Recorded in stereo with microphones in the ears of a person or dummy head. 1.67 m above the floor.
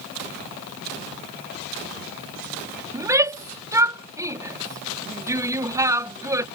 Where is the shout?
15° right (ahead or behind).